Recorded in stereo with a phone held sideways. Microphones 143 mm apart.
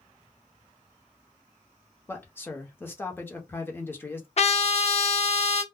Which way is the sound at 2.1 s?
15° left (ahead or behind).